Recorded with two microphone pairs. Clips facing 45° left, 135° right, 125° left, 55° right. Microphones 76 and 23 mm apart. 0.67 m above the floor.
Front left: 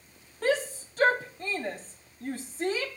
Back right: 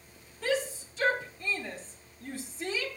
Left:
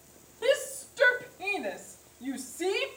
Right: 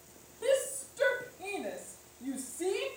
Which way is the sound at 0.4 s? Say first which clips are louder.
Front left 3 dB, left 2 dB; 70° left.